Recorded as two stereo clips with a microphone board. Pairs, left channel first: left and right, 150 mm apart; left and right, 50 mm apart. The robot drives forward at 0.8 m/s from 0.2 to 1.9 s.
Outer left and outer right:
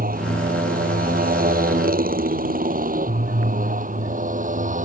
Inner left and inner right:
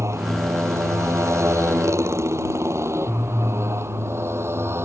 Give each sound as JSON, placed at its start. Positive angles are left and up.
{"t": 0.0, "sound": "a motorcycle", "side_deg": -75}